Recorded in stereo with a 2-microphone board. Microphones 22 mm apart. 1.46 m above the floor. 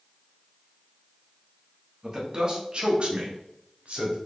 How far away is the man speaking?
About 1.3 m.